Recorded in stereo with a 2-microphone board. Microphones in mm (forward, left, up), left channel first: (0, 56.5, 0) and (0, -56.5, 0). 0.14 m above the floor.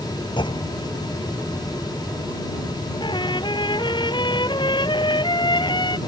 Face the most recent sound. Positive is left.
turn(degrees=45)  # may be behind; listen again after turning